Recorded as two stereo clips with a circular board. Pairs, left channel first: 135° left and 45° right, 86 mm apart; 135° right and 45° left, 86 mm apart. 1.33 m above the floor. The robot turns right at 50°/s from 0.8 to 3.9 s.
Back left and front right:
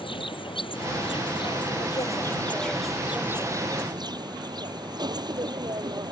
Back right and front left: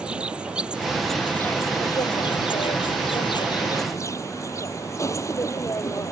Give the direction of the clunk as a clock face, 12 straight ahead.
I don't hear a clunk.